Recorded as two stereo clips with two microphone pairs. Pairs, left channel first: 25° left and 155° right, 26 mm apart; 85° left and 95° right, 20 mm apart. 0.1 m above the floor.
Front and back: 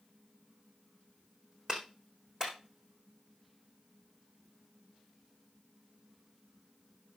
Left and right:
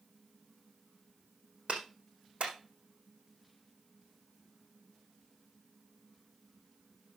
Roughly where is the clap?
Right.